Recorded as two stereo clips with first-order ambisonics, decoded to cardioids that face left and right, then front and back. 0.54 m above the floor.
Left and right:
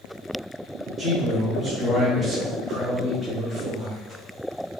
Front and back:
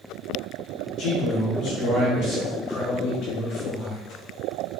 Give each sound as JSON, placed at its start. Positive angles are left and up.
{"t": 1.0, "sound": "a man speaking", "azimuth_deg": -10, "distance_m": 1.3}